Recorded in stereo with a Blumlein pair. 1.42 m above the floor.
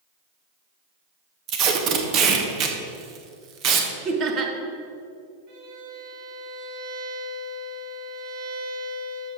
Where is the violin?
50° right, 3 m.